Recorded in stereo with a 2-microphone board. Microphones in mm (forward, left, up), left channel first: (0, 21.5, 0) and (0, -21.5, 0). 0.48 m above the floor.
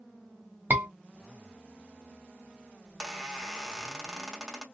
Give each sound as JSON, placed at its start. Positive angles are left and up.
{"t": 0.7, "sound": "a scream", "side_deg": -45, "distance_m": 1.0}
{"t": 2.9, "sound": "a squeak", "side_deg": -15, "distance_m": 0.8}